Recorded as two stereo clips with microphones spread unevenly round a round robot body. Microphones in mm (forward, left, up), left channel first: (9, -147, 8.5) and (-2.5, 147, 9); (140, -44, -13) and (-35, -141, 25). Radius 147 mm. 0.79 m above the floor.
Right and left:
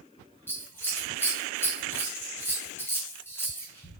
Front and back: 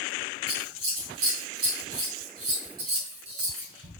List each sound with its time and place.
0.5 s scissors: 170° right, 2.5 m